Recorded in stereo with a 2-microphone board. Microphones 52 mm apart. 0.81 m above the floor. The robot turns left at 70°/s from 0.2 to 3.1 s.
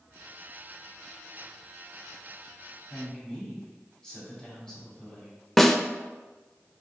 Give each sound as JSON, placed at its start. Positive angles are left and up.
{"t": 2.9, "sound": "a woman speaking", "side_deg": 25, "distance_m": 2.5}
{"t": 5.6, "sound": "a snare drum", "side_deg": 5, "distance_m": 0.5}